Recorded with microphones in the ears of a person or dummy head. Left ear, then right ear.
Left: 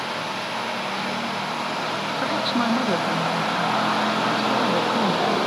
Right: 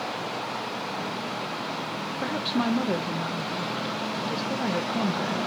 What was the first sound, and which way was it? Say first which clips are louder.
A woman speaking: left 4 dB; 20° left (ahead or behind).